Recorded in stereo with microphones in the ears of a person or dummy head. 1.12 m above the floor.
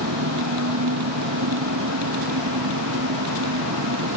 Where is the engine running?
75° right (ahead or behind).